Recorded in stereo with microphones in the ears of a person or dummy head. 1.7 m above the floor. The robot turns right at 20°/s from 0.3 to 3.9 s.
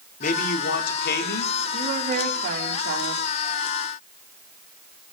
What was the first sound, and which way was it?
A man speaking, 45° left (ahead or behind).